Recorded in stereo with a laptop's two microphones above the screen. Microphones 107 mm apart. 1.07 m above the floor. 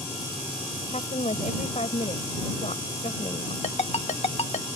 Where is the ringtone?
70° left (ahead or behind).